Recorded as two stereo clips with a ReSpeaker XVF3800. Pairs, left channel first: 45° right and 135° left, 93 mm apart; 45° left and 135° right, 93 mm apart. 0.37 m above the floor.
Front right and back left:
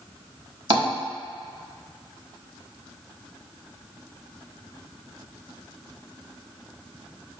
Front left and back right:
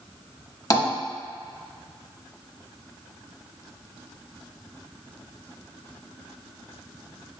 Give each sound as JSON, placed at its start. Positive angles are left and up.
{"t": 0.7, "sound": "tapping", "azimuth_deg": 100, "distance_m": 1.1}